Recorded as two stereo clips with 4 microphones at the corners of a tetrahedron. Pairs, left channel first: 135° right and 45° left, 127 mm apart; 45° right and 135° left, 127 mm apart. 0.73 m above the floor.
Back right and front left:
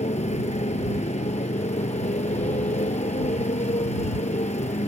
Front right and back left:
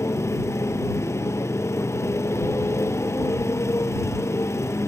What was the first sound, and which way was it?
A motorcycle, 110° right.